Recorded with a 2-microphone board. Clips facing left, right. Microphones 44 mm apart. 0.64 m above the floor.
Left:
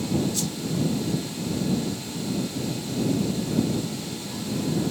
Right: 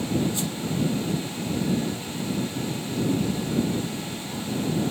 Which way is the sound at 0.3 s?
25° right (ahead or behind).